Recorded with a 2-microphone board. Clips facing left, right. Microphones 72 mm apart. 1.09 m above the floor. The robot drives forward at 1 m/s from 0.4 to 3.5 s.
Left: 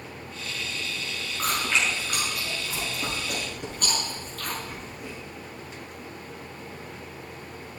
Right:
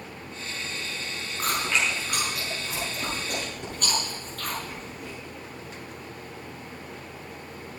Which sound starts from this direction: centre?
Chewing, at 1.4 s.